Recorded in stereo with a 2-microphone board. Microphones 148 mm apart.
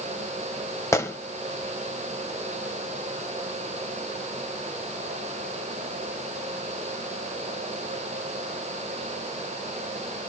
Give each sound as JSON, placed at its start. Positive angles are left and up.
{"t": 0.9, "sound": "a gunshot", "side_deg": 20, "distance_m": 1.0}